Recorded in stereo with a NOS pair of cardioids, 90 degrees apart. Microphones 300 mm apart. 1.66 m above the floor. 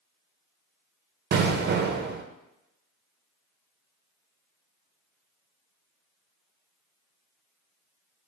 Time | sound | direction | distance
1.3 | an explosion | 35° right | 0.5 m